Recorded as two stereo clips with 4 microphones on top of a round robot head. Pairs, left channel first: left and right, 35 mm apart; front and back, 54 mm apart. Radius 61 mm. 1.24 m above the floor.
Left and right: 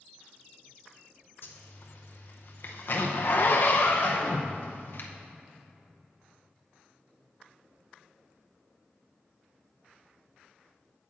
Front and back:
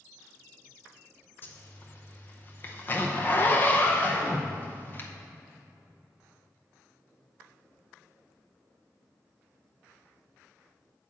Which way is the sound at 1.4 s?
55° left.